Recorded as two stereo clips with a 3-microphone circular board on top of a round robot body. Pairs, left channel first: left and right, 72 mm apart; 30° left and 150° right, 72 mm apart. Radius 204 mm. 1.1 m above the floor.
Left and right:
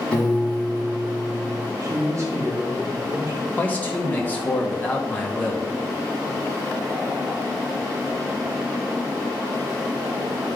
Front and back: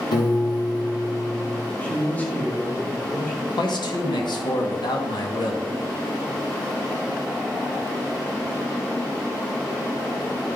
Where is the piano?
10° left, 1.7 m.